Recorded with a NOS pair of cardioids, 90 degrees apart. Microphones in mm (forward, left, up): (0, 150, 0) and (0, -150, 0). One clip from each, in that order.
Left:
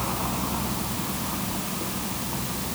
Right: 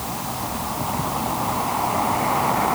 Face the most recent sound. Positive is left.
No sound to turn to.